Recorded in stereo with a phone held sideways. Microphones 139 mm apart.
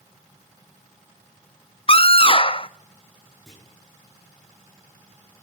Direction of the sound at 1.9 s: 40° left (ahead or behind).